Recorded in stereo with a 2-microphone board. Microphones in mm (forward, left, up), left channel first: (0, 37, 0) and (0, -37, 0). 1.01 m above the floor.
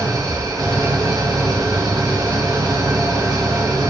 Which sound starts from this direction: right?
An engine running, at 0.0 s.